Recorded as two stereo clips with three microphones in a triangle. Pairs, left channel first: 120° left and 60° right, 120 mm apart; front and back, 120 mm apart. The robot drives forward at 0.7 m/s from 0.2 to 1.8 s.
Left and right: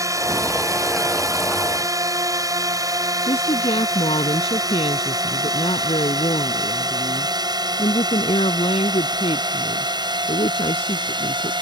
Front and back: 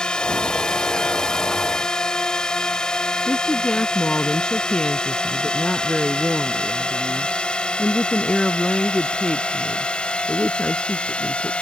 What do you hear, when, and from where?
0.0 s a drone: 75° right
3.3 s a woman speaking: 85° left